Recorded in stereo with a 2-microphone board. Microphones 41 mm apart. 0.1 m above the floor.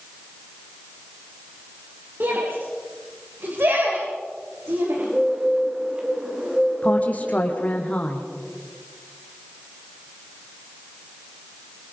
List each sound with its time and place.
2.2 s a shout: 60° right (ahead or behind), 9.5 m; by 5.0 s 70° right (ahead or behind), 9 m
5.0 s a bird: 25° right (ahead or behind), 7.5 m
6.8 s a woman speaking: 35° left (ahead or behind), 5 m